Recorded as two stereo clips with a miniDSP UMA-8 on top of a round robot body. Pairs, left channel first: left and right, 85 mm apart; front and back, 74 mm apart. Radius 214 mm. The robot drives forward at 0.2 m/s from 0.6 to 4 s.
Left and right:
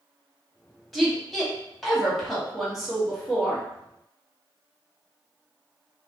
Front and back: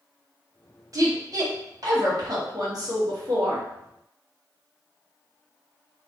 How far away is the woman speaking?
About 1.2 m.